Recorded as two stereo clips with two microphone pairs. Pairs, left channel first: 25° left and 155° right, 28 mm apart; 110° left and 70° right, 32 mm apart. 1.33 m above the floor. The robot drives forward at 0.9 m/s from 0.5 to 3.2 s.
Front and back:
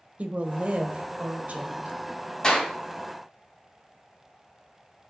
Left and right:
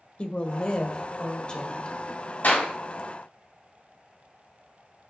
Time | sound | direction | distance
0.2 | a woman speaking | 165° left | 0.9 m
2.4 | a clap | 90° left | 4 m